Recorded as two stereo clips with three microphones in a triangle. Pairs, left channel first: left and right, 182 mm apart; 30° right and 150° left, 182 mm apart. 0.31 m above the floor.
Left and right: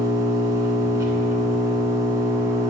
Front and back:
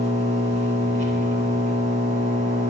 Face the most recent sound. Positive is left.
turn(degrees=-160)